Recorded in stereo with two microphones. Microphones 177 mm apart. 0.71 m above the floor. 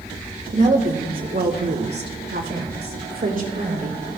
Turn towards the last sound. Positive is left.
turn(degrees=-50)  # may be behind; listen again after turning